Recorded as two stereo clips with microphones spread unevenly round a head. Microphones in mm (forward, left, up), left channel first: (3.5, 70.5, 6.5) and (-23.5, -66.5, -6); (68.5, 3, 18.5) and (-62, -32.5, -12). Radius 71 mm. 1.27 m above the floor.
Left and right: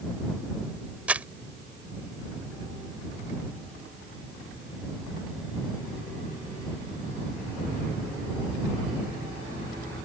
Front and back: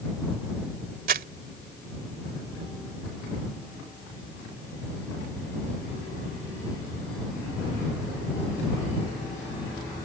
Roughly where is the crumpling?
Behind.